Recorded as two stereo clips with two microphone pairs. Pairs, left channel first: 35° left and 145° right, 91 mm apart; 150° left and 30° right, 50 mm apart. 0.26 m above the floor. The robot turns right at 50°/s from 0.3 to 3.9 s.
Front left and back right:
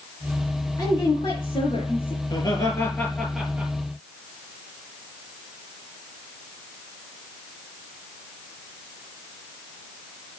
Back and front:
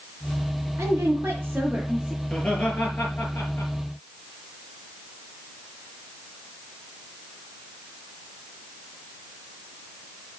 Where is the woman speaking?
15° right, 4.5 m; by 2.1 s 55° left, 4.5 m.